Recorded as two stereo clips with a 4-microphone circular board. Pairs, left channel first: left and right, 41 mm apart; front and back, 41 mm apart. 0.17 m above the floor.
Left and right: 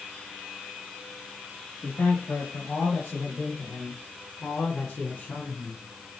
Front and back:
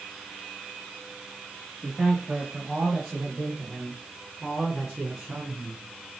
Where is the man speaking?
100° left, 3.5 m; by 5.8 s 90° left, 1.3 m.